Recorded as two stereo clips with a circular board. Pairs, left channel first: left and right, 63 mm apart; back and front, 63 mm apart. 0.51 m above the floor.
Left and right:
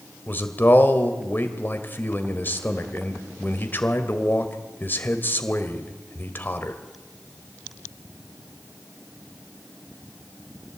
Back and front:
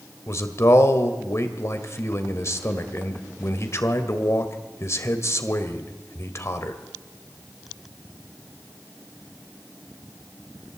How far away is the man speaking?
About 1.7 m.